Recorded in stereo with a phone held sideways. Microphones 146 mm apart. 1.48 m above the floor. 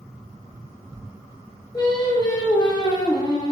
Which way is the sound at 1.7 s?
30° left (ahead or behind).